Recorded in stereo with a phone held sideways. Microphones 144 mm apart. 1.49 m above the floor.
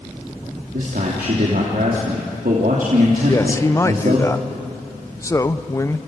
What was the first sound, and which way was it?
A man speaking, 80° right.